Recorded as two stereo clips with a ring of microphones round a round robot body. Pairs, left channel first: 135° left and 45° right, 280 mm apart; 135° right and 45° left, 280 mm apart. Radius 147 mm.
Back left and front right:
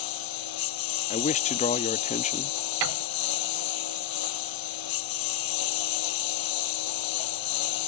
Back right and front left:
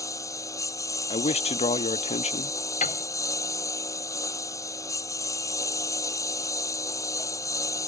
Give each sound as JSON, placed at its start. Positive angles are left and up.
{"t": 0.0, "sound": "a lawn mower", "azimuth_deg": 145}
{"t": 1.1, "sound": "a man speaking", "azimuth_deg": 175}
{"t": 2.8, "sound": "a piano", "azimuth_deg": -70}